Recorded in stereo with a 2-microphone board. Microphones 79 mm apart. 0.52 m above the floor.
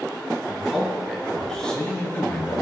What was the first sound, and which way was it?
A man speaking, 5° right (ahead or behind).